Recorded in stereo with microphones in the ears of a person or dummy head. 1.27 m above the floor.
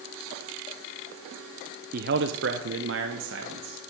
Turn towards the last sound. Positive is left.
turn(degrees=-55)  # may be behind; listen again after turning